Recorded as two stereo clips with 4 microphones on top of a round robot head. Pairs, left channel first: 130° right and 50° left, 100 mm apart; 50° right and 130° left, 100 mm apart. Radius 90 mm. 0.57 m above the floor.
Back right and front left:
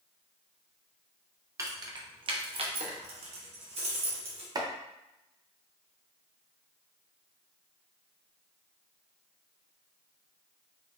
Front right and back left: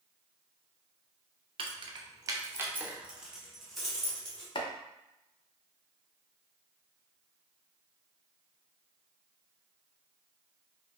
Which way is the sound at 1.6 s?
105° left.